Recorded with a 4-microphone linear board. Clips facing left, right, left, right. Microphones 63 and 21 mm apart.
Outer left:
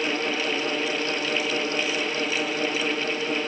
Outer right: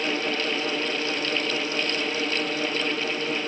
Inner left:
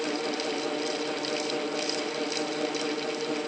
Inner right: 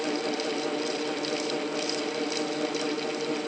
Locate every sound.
Only background noise.